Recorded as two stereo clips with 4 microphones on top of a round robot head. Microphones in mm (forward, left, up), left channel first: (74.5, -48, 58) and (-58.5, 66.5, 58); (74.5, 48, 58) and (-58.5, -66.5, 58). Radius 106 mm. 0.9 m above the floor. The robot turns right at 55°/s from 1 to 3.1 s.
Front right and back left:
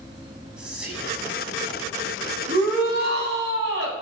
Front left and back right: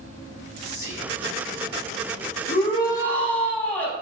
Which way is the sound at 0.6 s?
55° left.